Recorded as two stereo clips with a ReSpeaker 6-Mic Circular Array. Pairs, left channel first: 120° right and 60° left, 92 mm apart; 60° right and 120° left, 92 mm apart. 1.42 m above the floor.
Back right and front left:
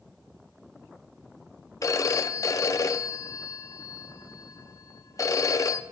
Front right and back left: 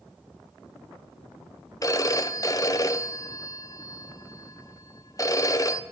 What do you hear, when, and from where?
1.8 s a phone ringing: 85° right, 0.7 m